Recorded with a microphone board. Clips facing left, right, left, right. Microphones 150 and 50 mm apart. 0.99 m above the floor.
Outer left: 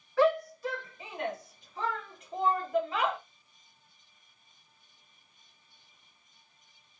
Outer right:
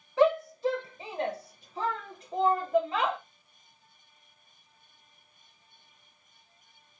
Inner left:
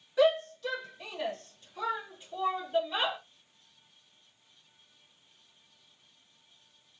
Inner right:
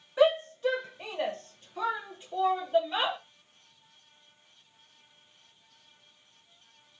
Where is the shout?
20° right (ahead or behind), 1.3 m; by 3.2 s 25° right (ahead or behind), 1.7 m.